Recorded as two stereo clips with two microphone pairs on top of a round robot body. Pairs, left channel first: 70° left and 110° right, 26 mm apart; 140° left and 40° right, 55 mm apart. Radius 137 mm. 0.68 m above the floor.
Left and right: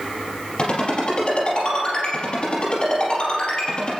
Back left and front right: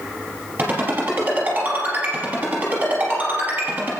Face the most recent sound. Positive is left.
turn(degrees=20)